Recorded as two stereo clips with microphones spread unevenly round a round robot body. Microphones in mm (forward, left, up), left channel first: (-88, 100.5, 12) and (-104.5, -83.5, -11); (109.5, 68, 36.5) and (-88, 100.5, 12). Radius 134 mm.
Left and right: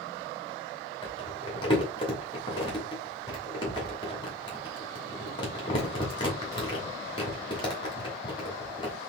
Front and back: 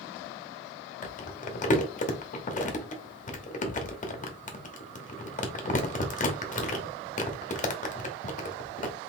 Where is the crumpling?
20° left, 1.0 m.